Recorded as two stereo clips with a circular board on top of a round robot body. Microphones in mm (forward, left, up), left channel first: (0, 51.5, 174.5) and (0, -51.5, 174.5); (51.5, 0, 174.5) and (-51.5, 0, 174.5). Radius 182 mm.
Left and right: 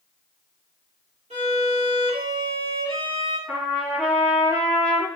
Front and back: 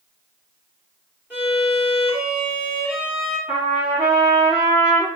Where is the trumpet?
160° right, 1.9 m.